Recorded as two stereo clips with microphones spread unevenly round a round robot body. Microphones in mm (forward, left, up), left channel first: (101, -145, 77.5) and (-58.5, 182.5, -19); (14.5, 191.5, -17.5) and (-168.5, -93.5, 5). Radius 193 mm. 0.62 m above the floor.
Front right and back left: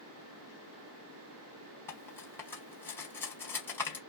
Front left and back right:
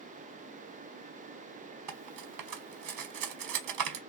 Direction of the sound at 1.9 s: 150° right.